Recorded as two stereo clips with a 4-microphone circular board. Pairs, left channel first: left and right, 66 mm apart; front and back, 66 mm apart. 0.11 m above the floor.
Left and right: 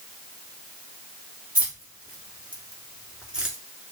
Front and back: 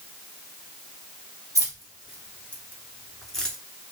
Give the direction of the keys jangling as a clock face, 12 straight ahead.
5 o'clock.